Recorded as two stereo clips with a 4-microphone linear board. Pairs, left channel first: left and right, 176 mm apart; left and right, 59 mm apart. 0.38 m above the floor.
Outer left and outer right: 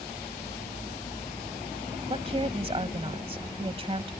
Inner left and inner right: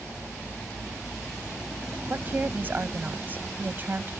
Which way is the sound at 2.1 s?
35° right (ahead or behind).